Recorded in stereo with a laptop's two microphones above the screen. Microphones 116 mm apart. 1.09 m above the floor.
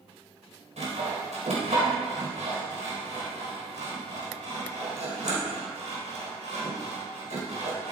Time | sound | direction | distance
0.8 | sawing | 85° right | 3.5 m